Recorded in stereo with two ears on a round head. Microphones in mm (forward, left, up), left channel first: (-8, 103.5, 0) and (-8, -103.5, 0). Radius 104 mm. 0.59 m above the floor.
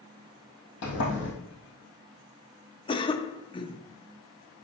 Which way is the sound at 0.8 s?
55° left (ahead or behind).